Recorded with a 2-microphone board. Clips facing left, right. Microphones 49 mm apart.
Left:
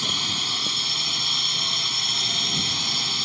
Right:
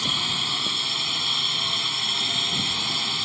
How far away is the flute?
I don't hear a flute.